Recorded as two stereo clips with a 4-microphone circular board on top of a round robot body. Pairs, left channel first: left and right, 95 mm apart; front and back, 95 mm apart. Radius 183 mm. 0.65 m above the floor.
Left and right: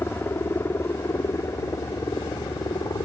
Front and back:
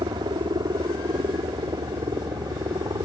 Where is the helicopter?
155° left; by 3.1 s 135° left.